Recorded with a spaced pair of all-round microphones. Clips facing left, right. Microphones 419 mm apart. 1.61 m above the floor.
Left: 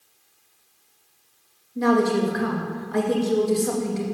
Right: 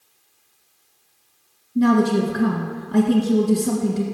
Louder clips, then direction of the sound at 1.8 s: Right 3 dB; 60° right (ahead or behind).